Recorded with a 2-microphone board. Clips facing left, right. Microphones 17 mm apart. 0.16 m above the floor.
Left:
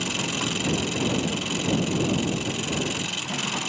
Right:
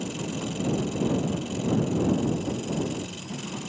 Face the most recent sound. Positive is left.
turn(degrees=55)  # may be behind; listen again after turning